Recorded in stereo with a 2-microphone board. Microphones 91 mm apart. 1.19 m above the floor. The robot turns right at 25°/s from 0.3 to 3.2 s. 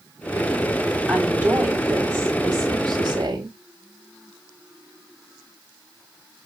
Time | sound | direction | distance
1.1 | a woman speaking | 170° right | 7 m